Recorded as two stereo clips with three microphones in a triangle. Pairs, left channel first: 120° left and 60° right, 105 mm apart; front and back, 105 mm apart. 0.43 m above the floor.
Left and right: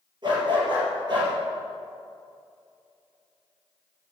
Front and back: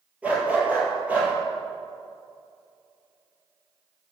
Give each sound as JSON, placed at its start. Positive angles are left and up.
{"t": 0.2, "sound": "a dog barking", "azimuth_deg": -100, "distance_m": 4.0}